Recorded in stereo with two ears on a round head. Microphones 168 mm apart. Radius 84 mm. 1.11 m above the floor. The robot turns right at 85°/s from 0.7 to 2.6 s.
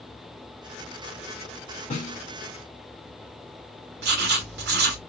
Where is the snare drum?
45° left (ahead or behind), 1.9 m; by 2.2 s 70° left (ahead or behind), 1.9 m.